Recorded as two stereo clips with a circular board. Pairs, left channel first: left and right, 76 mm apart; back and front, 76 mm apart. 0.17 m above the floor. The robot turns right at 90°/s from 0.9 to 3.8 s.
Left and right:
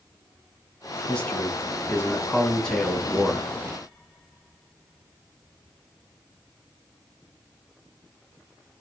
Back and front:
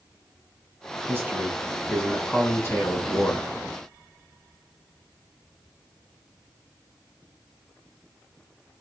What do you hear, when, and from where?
1.1 s a man speaking: 20° left, 1.7 m; by 3.5 s 125° right, 1.7 m